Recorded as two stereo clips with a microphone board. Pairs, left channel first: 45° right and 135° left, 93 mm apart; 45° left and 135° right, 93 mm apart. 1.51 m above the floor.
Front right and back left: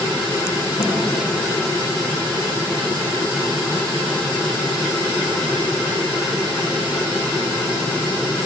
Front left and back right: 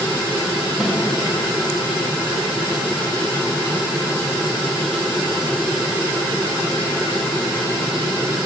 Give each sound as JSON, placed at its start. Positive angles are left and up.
{"t": 0.8, "sound": "a snare drum", "azimuth_deg": -50, "distance_m": 3.0}